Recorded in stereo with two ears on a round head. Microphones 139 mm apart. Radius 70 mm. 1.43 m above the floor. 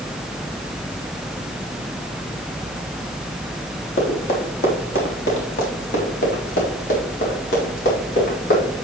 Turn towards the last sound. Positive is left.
turn(degrees=70)  # may be behind; listen again after turning